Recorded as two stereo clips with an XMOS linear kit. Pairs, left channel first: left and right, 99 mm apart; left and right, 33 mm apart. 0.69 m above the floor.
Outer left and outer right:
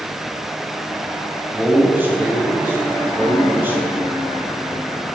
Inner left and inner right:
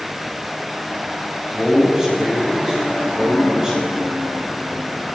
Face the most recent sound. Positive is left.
turn(degrees=-20)  # may be behind; listen again after turning